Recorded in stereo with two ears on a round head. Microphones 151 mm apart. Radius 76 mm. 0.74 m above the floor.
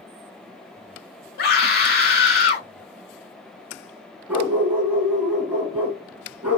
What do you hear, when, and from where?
1.4 s a scream: 60° left (ahead or behind), 2.5 m
4.3 s a dog barking: 10° right (ahead or behind), 2 m